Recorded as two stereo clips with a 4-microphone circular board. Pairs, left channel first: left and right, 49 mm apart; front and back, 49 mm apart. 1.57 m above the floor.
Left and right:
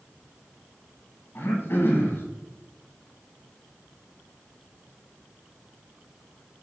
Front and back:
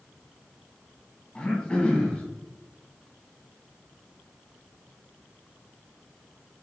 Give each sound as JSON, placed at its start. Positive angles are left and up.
{"t": 1.4, "sound": "throat clearing", "azimuth_deg": 65, "distance_m": 1.1}